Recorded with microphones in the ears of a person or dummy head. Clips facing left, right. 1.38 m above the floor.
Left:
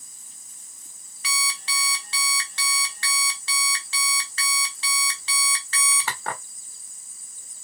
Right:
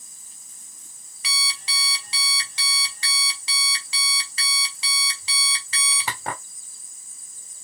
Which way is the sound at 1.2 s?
15° right (ahead or behind).